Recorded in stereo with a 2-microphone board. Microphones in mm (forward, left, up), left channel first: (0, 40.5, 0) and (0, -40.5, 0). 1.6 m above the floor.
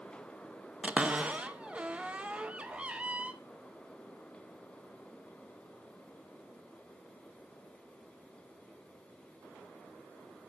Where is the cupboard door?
15° right (ahead or behind), 0.6 m.